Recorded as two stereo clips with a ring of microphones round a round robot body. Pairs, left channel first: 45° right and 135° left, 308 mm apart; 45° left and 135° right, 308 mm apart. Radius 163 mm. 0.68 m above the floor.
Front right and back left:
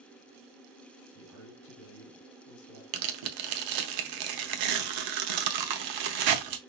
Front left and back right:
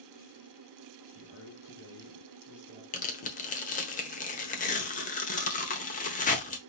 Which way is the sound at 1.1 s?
10° right.